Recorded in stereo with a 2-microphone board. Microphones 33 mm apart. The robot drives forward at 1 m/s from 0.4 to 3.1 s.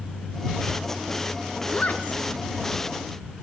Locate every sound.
1.7 s a woman speaking: 45° left (ahead or behind), 2.5 m